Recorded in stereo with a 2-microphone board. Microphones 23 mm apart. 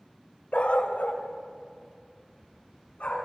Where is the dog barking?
75° left (ahead or behind), 1.4 m; by 3.3 s 85° left, 4 m.